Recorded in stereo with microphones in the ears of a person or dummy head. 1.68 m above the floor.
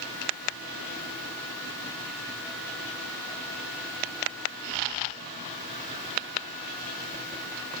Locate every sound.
Only background noise.